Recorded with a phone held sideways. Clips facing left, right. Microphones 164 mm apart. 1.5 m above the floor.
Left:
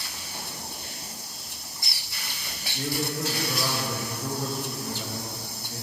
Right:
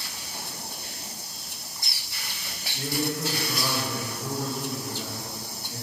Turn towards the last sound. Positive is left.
turn(degrees=-5)  # may be behind; listen again after turning